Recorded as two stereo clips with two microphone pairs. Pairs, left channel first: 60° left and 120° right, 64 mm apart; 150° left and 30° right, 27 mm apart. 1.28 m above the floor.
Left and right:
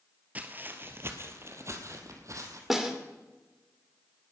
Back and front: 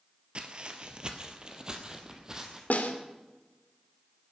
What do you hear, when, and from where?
0.3 s footsteps: 65° right, 1.7 m; by 2.6 s 95° right, 3 m
2.7 s a snare drum: 155° left, 2.5 m